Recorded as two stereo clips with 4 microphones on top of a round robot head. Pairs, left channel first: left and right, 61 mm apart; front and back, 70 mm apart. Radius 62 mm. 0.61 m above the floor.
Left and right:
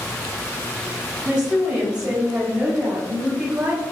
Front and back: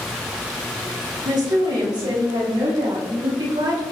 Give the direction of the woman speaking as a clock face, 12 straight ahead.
6 o'clock.